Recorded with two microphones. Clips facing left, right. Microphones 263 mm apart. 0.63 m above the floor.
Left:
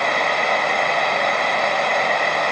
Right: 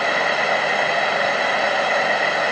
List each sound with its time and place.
Only background noise.